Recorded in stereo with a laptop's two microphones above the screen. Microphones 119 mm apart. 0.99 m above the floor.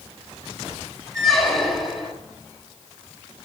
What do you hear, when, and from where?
1.1 s a squeak: centre (ahead or behind), 0.6 m